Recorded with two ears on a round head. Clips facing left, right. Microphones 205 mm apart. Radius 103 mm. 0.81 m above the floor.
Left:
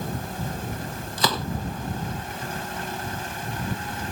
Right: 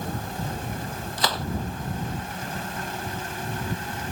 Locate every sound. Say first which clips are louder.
1.2 s a gunshot: left 3 dB; 85° left